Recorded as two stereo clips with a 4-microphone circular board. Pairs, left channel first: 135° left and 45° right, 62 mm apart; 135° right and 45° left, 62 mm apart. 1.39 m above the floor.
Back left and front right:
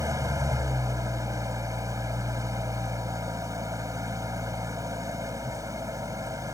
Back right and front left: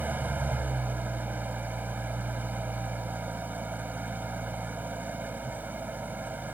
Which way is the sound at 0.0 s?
15° right.